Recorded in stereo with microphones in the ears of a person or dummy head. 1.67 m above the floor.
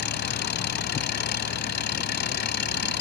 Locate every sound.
0.0 s an engine running: 55° left (ahead or behind)